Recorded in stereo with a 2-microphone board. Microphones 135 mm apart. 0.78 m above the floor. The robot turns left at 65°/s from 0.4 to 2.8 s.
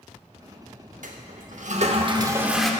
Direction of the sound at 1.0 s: 75° right.